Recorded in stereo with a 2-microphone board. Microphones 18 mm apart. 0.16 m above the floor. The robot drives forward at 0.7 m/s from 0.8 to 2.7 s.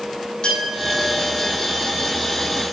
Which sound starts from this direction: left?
A clink, at 0.4 s.